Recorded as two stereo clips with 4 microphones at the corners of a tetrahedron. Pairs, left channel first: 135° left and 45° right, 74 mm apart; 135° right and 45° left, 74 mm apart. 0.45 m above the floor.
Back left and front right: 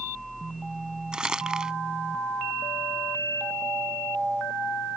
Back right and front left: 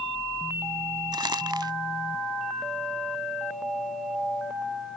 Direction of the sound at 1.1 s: 35° left.